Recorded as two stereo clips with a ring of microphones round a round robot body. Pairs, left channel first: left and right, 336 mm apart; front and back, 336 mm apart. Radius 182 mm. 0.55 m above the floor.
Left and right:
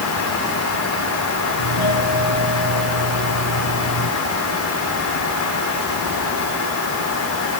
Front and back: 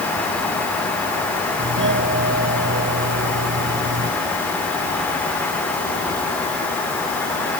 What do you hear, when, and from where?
1.6 s a doorbell: 125° left